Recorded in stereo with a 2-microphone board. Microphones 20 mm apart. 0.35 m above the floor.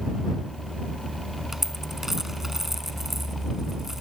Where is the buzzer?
I don't hear a buzzer.